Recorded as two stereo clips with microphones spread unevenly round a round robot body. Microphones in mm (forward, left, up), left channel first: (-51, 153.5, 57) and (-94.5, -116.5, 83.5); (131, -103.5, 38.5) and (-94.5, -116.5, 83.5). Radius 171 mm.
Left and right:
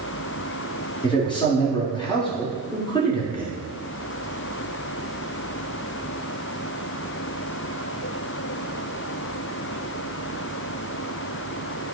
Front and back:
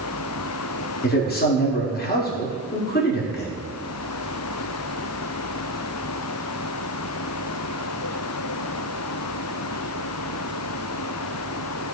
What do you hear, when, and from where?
1.0 s a man speaking: 15° left, 1.6 m